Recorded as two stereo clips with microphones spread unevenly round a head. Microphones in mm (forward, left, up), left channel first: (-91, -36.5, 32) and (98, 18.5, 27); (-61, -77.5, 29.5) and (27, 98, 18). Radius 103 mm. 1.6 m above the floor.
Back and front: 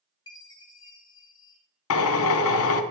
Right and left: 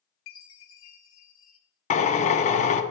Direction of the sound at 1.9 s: 170° right.